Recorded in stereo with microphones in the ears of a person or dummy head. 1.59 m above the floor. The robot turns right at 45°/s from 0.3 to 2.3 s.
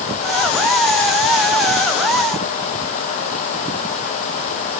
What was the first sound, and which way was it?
Only background noise.